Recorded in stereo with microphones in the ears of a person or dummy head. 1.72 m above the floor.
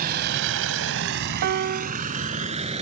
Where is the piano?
50° right (ahead or behind).